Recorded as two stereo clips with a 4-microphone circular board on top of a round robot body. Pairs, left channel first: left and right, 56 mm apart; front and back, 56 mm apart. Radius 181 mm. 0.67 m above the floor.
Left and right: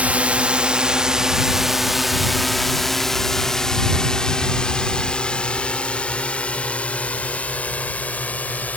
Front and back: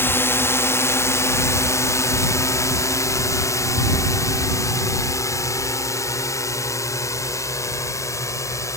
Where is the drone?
30° right; by 8.8 s 30° left.